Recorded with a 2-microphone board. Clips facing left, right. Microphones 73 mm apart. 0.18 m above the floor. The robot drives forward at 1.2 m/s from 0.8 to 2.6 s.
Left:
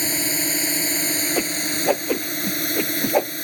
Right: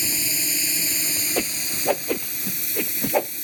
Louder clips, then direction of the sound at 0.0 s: Left 6 dB; 50° left (ahead or behind).